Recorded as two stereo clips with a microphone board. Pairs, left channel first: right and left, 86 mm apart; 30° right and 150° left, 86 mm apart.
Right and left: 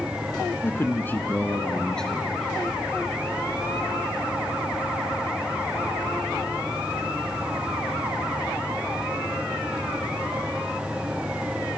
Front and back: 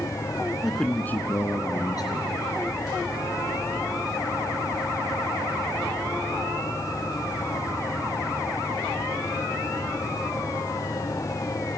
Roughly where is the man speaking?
Behind right.